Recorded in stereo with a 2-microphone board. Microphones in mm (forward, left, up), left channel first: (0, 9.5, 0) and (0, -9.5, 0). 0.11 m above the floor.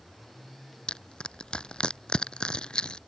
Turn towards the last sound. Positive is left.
turn(degrees=65)  # may be behind; listen again after turning